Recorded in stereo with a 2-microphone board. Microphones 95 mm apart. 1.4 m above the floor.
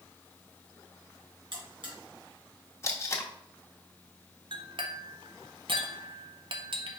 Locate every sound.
1.5 s a buzzer: 60° right (ahead or behind), 2.5 m
2.8 s tape being pulled: 30° left (ahead or behind), 0.8 m
4.5 s a clink: 60° right (ahead or behind), 0.7 m